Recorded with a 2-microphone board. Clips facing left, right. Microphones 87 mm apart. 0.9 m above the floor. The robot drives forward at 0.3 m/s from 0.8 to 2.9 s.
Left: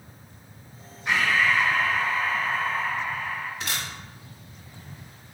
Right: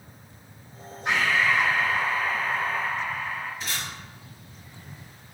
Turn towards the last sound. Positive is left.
turn(degrees=65)  # may be behind; listen again after turning